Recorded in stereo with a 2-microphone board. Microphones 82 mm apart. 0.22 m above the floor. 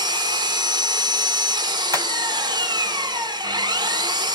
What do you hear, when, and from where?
0.0 s an engine running: 60° right (ahead or behind), 0.7 m
1.9 s hammering: 40° right (ahead or behind), 1.7 m